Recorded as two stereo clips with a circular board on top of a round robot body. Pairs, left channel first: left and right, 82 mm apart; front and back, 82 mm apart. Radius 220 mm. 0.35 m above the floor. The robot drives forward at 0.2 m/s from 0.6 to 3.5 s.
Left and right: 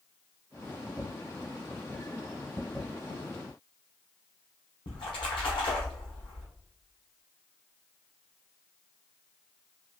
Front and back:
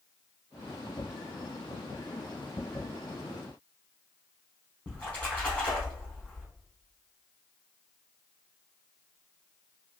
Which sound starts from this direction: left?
A splash, at 4.9 s.